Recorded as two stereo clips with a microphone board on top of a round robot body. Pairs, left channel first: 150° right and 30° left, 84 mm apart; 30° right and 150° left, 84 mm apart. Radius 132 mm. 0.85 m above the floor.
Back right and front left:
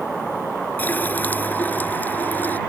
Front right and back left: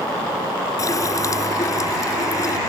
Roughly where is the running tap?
Right.